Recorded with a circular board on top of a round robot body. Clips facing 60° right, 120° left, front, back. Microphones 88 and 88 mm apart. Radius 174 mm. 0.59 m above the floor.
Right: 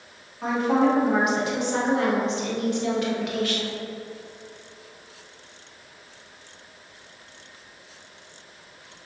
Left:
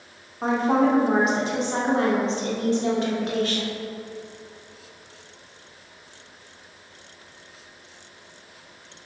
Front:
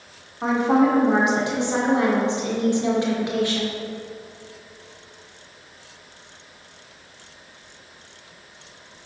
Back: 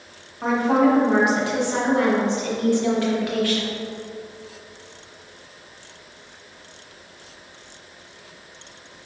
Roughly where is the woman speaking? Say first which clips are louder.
Left 1 dB, even; ahead left.